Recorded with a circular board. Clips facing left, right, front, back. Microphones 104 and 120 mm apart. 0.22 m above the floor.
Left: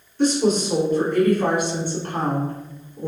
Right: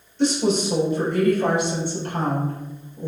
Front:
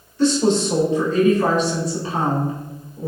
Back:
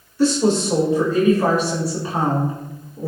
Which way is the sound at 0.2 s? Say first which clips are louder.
Left 1 dB, even; 100° left.